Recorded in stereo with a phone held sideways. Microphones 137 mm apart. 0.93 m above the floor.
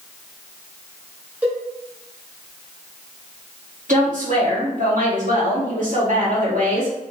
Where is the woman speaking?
70° right (ahead or behind), 1.9 m.